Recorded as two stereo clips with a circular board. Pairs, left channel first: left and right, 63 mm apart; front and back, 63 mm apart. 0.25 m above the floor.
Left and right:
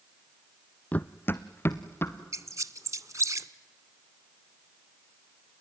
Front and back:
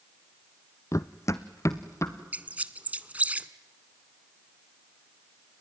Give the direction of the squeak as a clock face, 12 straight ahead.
4 o'clock.